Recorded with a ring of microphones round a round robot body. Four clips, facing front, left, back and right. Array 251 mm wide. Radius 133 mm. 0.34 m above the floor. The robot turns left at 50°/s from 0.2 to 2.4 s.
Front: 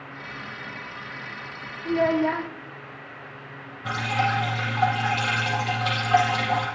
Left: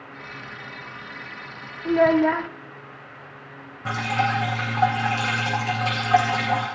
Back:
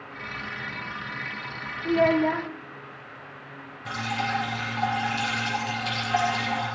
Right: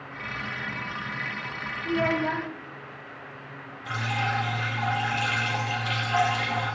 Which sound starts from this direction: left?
A child speaking, at 1.9 s.